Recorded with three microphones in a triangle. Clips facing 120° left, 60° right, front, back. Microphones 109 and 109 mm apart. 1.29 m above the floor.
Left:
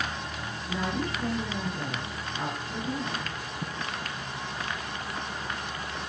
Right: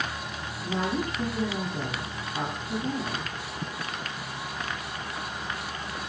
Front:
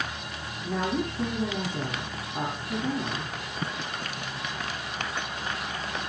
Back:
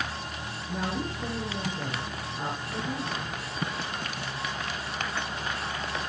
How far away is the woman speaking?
About 10 m.